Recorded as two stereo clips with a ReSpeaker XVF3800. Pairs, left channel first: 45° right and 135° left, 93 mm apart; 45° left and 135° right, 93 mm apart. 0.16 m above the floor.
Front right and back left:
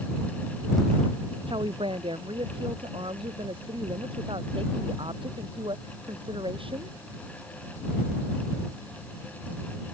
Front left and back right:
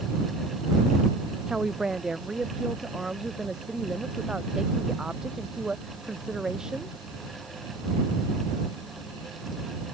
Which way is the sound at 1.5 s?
145° left.